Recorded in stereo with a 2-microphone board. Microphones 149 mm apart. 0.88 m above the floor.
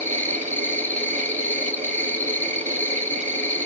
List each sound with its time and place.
0.0 s an insect: 15° left (ahead or behind), 1.1 m